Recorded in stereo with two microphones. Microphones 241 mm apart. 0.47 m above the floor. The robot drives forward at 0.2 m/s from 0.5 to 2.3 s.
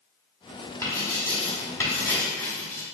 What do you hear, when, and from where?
0.8 s writing: 10° left (ahead or behind), 1.2 m